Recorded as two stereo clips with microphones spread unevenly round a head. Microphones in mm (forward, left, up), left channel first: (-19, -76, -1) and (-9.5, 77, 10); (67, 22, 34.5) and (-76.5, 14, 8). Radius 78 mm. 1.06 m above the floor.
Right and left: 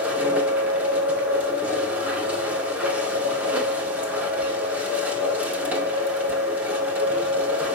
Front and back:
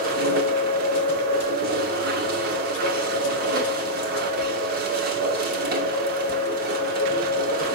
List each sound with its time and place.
0.0 s a machine running: 165° left, 2 m